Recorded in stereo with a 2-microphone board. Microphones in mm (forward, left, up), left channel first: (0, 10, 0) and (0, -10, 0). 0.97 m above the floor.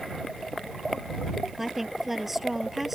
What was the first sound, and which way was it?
A woman speaking, 10° right (ahead or behind).